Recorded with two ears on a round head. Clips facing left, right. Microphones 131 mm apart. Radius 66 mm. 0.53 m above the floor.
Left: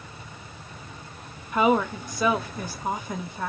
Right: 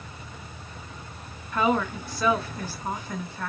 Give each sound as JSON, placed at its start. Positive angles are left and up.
{"t": 1.5, "sound": "a woman speaking", "side_deg": 15, "distance_m": 0.6}